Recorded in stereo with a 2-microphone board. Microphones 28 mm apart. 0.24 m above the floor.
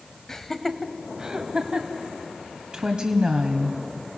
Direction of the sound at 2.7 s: 35° right (ahead or behind).